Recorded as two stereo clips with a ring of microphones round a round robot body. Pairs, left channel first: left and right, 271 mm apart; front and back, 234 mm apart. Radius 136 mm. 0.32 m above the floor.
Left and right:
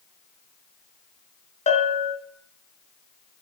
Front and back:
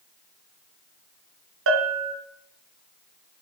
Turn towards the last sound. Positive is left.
turn(degrees=155)